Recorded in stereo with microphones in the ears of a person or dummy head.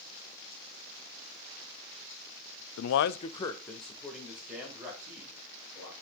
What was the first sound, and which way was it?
A man speaking, 85° left.